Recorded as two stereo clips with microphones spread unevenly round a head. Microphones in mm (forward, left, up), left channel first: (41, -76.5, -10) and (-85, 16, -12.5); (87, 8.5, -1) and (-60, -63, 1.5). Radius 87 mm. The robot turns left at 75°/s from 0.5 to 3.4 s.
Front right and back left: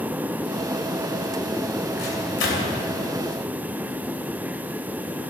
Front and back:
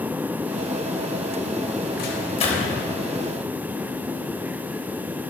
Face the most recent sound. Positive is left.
turn(degrees=-100)